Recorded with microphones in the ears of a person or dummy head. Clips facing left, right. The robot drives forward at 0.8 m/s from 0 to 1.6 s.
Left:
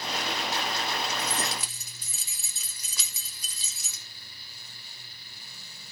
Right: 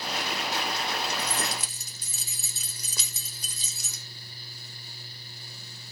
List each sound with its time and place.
1.2 s keys jangling: 50° right (ahead or behind), 0.9 m; by 4.0 s 40° right (ahead or behind), 1.2 m